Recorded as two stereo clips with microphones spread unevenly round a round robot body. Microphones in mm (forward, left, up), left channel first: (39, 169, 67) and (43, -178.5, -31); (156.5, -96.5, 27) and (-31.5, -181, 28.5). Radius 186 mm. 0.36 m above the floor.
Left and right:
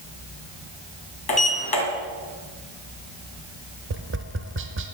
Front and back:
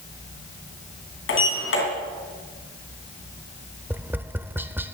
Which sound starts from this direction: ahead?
A sliding door, at 1.3 s.